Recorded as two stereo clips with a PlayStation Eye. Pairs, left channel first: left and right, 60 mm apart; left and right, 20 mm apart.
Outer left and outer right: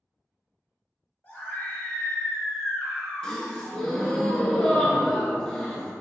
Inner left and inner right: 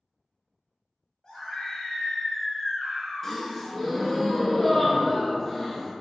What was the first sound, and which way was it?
A scream, 40° left (ahead or behind).